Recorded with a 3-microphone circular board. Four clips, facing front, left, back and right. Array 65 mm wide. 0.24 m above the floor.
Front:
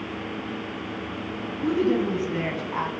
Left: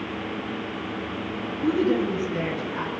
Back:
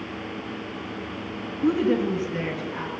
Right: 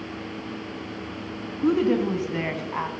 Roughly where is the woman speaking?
Right.